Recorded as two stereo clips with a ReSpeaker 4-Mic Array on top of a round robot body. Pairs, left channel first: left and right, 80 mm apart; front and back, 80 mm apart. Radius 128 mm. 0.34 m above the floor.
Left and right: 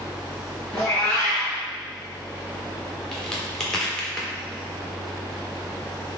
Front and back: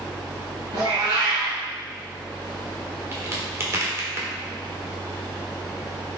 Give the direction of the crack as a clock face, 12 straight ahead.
7 o'clock.